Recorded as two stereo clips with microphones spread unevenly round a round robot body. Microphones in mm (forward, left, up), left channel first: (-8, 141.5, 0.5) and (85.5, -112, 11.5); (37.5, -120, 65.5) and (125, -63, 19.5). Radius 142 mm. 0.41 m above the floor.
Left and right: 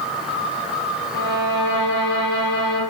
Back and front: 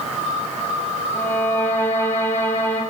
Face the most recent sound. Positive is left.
turn(degrees=140)